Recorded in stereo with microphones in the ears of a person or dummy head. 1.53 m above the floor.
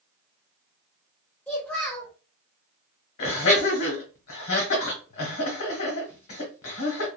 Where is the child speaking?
10° left (ahead or behind), 0.9 m.